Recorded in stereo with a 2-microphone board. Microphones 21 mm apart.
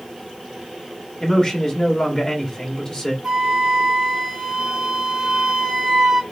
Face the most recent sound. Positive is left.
turn(degrees=-35)  # may be behind; listen again after turning